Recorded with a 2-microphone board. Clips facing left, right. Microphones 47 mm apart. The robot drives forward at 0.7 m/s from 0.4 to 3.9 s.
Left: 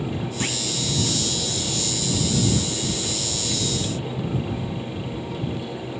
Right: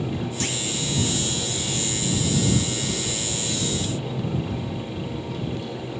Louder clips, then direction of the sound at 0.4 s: Left 1 dB; 15° left (ahead or behind).